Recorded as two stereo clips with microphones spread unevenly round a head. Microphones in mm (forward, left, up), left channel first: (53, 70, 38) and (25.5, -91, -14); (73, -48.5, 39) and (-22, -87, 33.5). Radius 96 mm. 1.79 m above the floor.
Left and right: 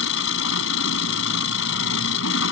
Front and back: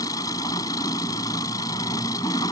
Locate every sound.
0.0 s an engine running: 95° left